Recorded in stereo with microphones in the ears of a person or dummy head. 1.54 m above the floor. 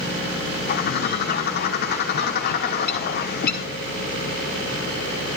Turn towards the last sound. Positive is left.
turn(degrees=50)  # may be behind; listen again after turning